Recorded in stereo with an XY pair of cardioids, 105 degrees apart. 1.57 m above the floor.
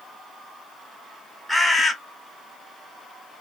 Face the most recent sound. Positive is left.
turn(degrees=0)